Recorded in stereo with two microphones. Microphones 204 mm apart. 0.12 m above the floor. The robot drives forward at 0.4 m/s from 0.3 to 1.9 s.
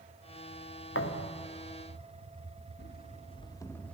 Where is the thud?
85° left, 1.6 m; by 1.5 s 80° left, 1.6 m.